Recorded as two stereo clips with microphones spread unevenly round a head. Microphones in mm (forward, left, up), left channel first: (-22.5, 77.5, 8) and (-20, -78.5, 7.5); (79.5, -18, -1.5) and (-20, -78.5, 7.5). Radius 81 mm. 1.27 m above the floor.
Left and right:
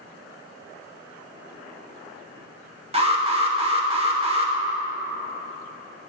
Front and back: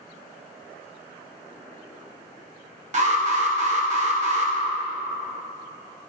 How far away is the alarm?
About 1.7 m.